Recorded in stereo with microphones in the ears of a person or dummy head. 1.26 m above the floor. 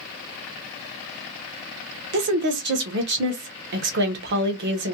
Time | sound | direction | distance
2.1 | a woman speaking | 55° right (ahead or behind) | 0.8 m